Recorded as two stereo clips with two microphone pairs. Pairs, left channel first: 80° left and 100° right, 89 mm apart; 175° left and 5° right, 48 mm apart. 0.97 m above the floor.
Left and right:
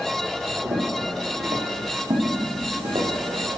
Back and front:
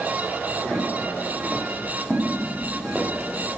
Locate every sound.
0.7 s footsteps: 100° right, 5.5 m; by 3.1 s 85° right, 4.5 m